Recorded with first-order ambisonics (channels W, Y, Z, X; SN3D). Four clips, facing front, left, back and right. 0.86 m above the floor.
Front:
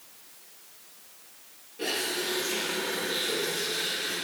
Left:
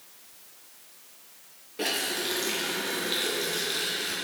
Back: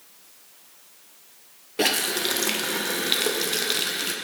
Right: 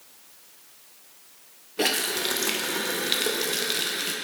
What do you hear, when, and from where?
1.8 s a running tap: 150° right, 0.6 m